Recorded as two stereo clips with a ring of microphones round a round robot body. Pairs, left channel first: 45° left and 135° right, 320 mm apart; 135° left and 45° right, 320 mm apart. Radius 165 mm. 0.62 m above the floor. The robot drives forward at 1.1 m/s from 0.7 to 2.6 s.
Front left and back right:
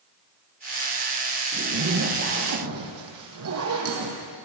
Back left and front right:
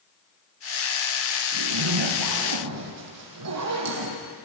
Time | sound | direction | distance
1.5 | a zipper | 70° right | 4.5 m